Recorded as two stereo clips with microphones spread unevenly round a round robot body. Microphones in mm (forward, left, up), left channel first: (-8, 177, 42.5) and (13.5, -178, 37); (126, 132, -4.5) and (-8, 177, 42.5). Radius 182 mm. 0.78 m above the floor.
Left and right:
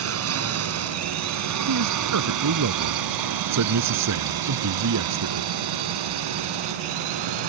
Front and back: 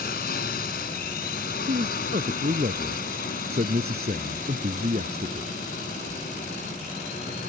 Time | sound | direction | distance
0.0 | a drone | 35° right | ?
1.7 | a man speaking | 135° right | ?